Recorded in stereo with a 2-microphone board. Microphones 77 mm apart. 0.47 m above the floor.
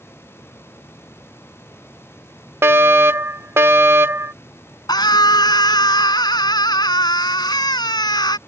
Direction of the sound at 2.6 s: 35° right (ahead or behind).